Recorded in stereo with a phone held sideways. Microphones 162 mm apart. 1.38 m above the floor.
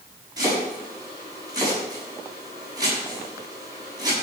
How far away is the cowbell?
I don't hear a cowbell.